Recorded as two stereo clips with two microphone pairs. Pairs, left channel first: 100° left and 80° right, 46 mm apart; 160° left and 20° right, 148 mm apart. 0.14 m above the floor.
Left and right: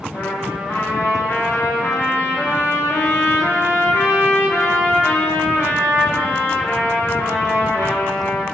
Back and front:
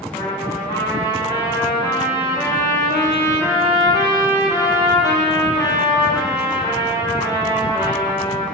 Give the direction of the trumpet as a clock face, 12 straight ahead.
9 o'clock.